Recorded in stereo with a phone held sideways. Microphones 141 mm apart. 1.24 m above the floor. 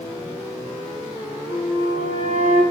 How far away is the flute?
About 5.5 m.